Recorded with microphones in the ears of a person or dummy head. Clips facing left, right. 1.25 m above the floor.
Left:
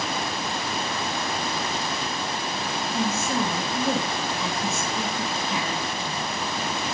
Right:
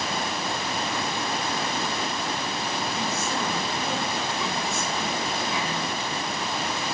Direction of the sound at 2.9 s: 45° left (ahead or behind).